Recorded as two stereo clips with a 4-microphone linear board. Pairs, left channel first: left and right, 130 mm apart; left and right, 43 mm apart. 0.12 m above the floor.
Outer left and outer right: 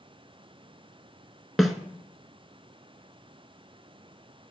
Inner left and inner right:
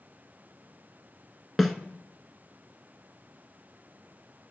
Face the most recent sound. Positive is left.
turn(degrees=0)  # may be behind; listen again after turning